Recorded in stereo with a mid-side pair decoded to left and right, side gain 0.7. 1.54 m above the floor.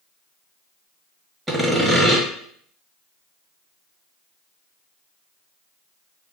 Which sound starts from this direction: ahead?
Sawing, at 1.5 s.